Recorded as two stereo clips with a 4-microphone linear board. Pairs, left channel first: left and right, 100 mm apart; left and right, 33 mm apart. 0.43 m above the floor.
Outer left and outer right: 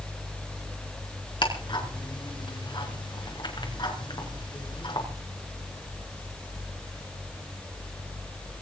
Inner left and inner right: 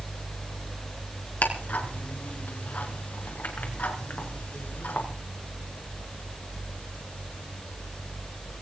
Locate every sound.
1.4 s ticking: 55° left (ahead or behind), 4.5 m